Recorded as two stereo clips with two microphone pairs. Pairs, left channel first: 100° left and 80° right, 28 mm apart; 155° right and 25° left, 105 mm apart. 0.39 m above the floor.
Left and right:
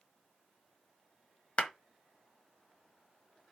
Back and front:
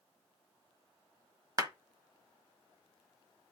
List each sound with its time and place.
1.6 s a clap: 75° left, 1.3 m